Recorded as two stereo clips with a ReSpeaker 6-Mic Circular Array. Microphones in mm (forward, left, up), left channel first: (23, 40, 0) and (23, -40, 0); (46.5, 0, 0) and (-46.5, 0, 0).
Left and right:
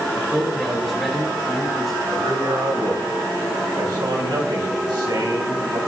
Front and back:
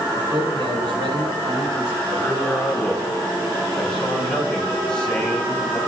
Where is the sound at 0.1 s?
Straight behind, 5 m.